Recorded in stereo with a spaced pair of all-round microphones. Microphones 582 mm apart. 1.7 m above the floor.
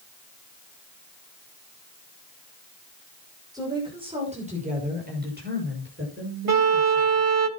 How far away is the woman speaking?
About 6 m.